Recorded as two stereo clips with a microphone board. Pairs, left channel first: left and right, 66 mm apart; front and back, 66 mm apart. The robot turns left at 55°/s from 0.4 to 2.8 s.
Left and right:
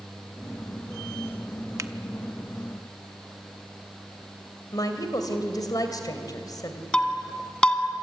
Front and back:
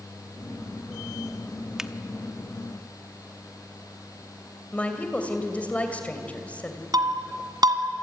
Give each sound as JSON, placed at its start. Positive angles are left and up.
{"t": 1.8, "sound": "a finger snap", "azimuth_deg": -100, "distance_m": 0.8}
{"t": 4.7, "sound": "a woman speaking", "azimuth_deg": 70, "distance_m": 2.5}
{"t": 6.9, "sound": "breaking glass", "azimuth_deg": 165, "distance_m": 1.6}